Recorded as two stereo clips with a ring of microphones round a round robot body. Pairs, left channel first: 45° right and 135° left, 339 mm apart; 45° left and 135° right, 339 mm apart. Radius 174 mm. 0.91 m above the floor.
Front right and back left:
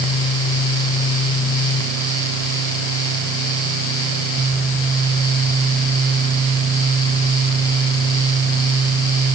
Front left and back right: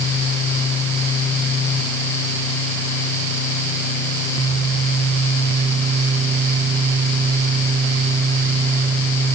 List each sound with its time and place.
Only background noise.